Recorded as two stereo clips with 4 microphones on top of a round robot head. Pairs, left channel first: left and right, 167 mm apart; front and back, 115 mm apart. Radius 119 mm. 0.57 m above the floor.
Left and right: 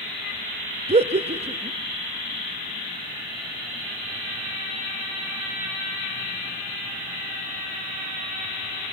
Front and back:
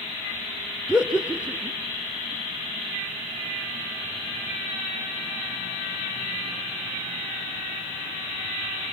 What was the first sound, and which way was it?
Laughter, 105° right.